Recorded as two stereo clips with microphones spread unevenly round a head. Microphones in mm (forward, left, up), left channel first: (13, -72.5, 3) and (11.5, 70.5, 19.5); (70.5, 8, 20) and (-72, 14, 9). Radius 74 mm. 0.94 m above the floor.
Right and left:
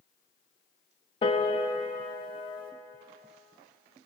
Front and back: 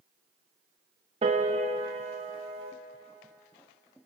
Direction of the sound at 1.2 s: 140° right.